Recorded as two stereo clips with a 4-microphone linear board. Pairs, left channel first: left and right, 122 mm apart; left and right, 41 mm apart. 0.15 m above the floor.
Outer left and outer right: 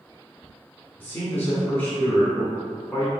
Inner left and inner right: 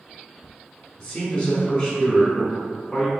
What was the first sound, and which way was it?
A man speaking, 15° left (ahead or behind).